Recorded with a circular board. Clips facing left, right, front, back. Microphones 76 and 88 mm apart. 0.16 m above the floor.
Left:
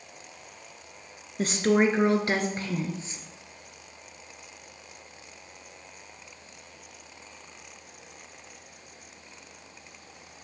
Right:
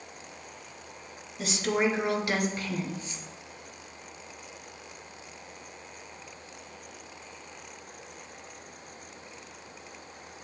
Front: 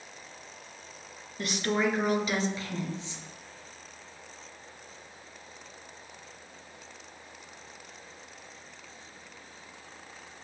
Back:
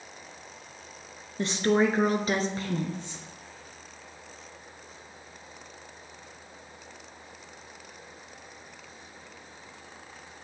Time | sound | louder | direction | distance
1.4 | a woman speaking | left 5 dB, back 5 dB | 125° left | 1.8 m